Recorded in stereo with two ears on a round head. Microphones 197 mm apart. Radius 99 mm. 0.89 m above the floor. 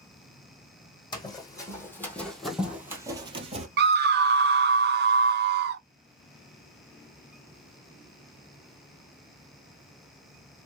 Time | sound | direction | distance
1.1 | running footsteps | 20° left (ahead or behind) | 1.9 m
3.8 | a scream | 45° right (ahead or behind) | 0.5 m